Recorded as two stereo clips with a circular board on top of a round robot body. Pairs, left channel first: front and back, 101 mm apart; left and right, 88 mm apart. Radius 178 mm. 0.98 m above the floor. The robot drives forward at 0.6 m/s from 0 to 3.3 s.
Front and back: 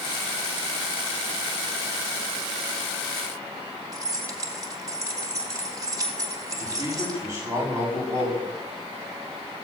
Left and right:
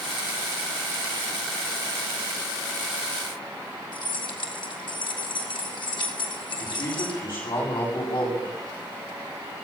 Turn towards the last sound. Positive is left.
turn(degrees=130)